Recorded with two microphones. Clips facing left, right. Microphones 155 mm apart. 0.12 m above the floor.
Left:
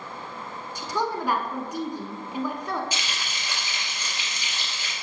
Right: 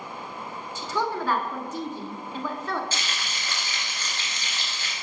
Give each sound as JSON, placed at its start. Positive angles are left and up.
{"t": 0.8, "sound": "a woman speaking", "side_deg": 15, "distance_m": 1.1}
{"t": 2.9, "sound": "frying", "side_deg": 15, "distance_m": 2.5}